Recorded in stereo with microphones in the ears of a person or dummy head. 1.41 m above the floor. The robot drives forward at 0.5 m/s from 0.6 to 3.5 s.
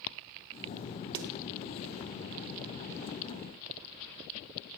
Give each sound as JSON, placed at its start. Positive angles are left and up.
{"t": 1.1, "sound": "a snare drum", "side_deg": -55, "distance_m": 0.9}